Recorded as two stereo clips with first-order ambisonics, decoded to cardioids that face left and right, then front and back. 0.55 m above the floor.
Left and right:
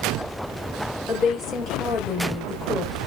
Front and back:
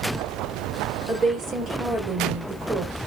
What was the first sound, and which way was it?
A woman speaking, 135° left.